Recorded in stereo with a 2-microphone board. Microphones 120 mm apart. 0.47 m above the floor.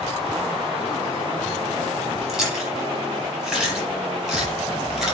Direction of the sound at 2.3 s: 5° right (ahead or behind).